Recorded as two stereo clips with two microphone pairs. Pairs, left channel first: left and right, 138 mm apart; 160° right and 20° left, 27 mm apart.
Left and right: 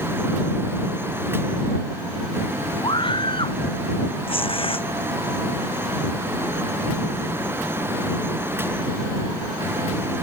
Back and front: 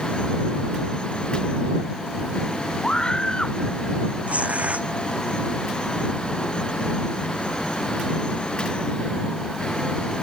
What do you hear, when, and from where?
2.8 s a scream: 145° left
4.3 s tearing paper: 45° left